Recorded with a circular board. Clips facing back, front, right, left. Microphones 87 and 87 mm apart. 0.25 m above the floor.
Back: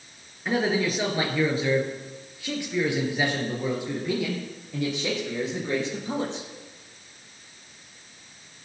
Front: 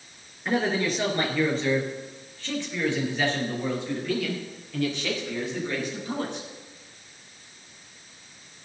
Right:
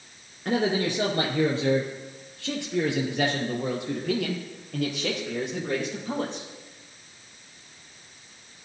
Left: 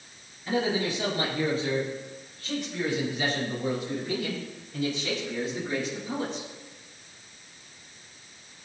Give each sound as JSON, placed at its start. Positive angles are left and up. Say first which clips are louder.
{"t": 0.5, "sound": "a man speaking", "louder": "back 1 dB, right 2 dB", "azimuth_deg": -90, "distance_m": 3.5}